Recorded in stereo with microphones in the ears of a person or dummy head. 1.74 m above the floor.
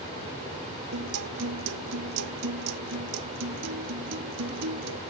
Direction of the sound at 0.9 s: 85° right.